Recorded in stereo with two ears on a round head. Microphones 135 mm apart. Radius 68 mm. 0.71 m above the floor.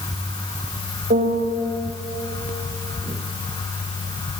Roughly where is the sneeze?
I don't hear a sneeze.